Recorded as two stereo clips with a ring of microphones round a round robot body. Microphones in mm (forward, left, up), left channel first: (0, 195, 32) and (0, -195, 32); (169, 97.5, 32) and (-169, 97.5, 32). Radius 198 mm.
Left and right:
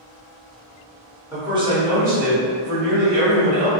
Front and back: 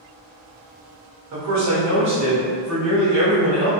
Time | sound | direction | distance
1.3 | a man speaking | 175° right | 1.2 m